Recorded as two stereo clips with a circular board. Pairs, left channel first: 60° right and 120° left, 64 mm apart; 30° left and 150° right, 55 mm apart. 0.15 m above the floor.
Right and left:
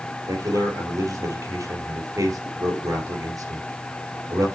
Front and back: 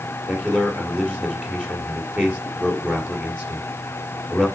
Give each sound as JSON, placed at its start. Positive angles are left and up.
{"t": 0.3, "sound": "a man speaking", "azimuth_deg": 140, "distance_m": 3.0}